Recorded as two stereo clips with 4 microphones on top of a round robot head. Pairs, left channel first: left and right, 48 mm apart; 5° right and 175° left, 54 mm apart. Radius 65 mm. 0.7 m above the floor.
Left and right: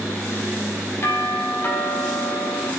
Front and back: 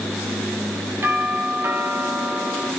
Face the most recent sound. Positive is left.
turn(degrees=130)